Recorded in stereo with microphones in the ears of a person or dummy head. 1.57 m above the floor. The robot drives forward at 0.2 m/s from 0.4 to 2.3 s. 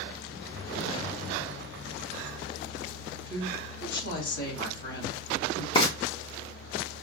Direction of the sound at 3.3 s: 65° left (ahead or behind).